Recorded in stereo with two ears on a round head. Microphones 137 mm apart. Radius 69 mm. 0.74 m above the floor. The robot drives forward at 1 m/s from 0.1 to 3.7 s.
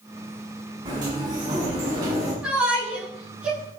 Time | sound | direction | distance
0.8 | a sliding door | 30° right (ahead or behind) | 7 m
2.4 | a shout | 5° right (ahead or behind) | 8.5 m